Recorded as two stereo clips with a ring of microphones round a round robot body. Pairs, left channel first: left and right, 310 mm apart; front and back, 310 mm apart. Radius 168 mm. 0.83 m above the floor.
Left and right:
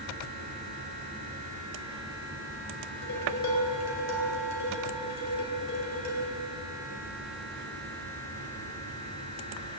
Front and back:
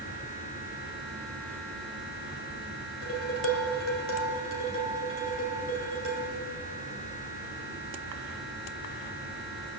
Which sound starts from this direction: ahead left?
Dishes clattering, at 3.0 s.